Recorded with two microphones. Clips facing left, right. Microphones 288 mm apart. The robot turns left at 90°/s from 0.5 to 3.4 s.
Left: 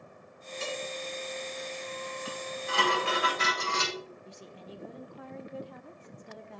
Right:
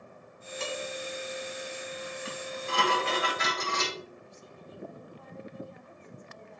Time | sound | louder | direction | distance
0.6 | dishes clattering | right 1 dB | 80° right | 4.5 m
2.2 | dishes clattering | right 1 dB | 115° right | 6 m
4.2 | a woman speaking | left 3 dB | 80° left | 0.9 m